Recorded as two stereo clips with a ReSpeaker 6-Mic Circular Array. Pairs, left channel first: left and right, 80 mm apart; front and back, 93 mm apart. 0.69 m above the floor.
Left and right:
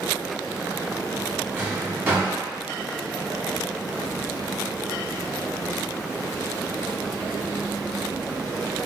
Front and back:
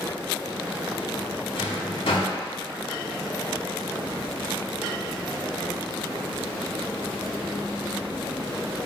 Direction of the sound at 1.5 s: 25° right.